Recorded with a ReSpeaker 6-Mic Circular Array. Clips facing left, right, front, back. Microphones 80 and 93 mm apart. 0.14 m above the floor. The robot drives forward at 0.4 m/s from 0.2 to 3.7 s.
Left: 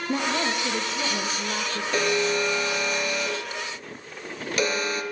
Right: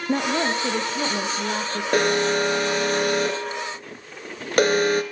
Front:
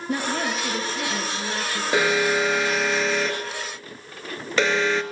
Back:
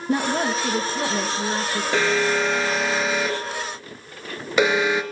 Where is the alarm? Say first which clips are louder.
Right 4 dB, even; 75° right, 1.8 m; by 5.0 s 105° right, 1.8 m.